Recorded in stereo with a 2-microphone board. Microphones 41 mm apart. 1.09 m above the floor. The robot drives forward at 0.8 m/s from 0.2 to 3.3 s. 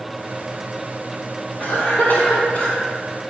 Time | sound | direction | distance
1.6 | a cough | 55° left (ahead or behind) | 3.5 m